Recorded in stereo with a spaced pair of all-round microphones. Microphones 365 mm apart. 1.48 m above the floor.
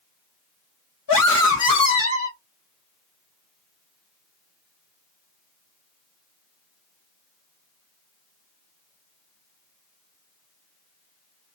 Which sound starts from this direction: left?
A scream, at 1.1 s.